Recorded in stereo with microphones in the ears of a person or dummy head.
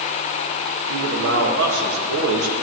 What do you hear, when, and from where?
0.9 s a man speaking: 75° right (ahead or behind), 1.5 m